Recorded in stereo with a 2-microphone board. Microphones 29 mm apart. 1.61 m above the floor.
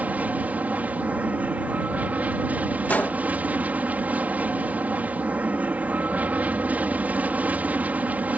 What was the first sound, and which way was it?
An aircraft, 60° right (ahead or behind).